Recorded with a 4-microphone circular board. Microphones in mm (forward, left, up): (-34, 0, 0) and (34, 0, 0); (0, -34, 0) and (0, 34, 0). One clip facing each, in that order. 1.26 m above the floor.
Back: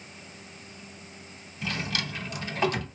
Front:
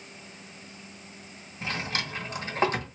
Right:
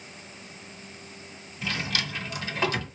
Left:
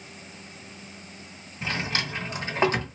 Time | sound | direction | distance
1.6 | a drawer | 40° left | 1.3 m